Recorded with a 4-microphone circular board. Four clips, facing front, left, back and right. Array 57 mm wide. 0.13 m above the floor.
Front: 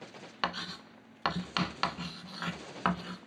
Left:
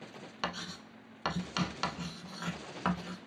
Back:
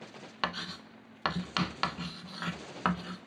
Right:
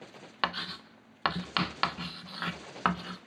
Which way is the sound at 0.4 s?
90° right.